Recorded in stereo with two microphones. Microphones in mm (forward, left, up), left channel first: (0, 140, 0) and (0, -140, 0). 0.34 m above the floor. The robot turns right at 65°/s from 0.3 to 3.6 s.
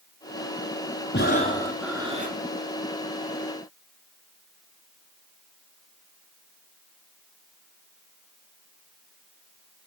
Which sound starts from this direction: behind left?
Breathing, at 1.1 s.